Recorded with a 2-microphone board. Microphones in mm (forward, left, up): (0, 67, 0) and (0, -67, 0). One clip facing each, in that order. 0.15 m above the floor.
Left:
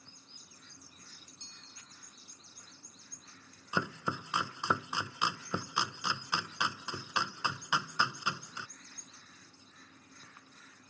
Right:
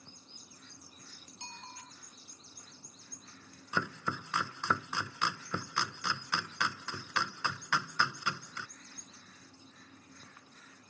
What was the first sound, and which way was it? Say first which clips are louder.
A bicycle bell: right 10 dB; 75° right (ahead or behind).